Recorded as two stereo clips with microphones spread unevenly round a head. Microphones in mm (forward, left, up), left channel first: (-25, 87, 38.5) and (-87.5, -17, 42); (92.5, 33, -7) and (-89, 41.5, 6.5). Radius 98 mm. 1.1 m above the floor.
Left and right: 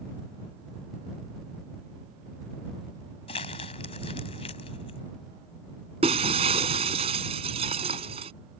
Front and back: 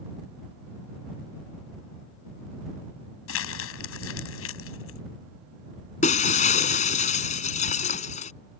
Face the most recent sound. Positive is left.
turn(degrees=-60)